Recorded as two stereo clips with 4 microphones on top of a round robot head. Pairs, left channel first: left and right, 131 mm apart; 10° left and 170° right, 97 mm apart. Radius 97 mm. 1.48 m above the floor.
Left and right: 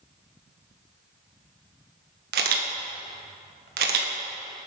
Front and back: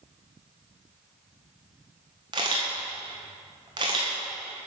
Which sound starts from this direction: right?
A camera shutter, at 2.3 s.